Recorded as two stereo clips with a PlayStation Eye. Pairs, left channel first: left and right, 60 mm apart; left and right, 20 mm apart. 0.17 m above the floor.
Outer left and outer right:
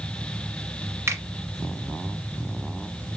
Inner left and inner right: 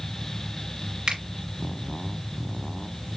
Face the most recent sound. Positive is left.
turn(degrees=-45)  # may be behind; listen again after turning